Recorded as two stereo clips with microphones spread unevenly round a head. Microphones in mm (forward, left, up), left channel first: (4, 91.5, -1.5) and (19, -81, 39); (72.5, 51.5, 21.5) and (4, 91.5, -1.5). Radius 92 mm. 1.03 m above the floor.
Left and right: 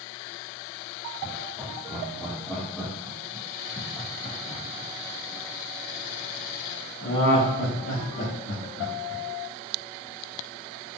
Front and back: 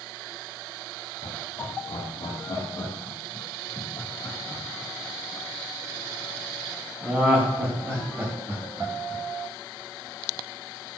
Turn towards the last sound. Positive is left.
turn(degrees=100)